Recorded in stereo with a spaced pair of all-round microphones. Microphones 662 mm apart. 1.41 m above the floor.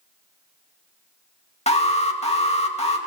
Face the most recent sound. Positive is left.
turn(degrees=10)  # may be behind; listen again after turning